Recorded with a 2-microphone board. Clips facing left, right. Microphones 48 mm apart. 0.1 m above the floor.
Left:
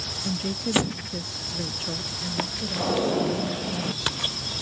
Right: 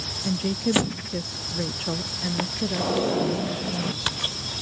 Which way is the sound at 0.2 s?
15° right (ahead or behind).